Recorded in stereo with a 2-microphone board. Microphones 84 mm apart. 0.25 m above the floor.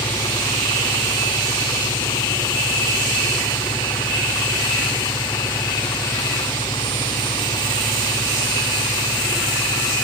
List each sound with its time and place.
0.0 s an engine running: 70° left (ahead or behind)